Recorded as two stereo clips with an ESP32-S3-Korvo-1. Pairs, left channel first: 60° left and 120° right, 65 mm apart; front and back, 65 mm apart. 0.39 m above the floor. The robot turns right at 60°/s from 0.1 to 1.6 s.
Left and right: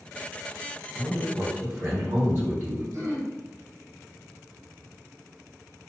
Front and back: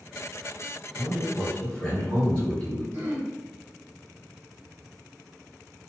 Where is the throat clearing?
140° right, 1.4 m.